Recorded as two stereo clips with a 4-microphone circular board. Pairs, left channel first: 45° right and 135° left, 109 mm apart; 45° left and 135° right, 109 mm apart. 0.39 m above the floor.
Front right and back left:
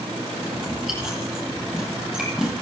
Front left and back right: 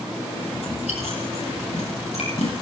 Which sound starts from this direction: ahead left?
Chewing, at 0.5 s.